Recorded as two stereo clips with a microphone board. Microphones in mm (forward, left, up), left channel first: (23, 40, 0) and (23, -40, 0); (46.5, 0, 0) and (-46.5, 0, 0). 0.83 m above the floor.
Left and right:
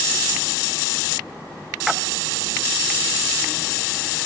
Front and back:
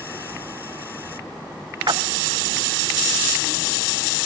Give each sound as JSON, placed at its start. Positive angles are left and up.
{"t": 1.9, "sound": "a splash", "azimuth_deg": -175, "distance_m": 0.7}